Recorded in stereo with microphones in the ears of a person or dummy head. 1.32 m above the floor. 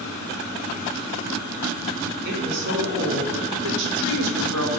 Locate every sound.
2.2 s a woman speaking: 65° right (ahead or behind), 4.5 m; by 4.7 s 85° right, 3.5 m